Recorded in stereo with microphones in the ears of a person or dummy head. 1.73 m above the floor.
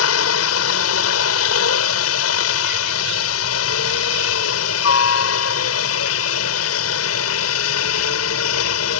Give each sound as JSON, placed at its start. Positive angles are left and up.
{"t": 0.0, "sound": "a helicopter", "side_deg": 80}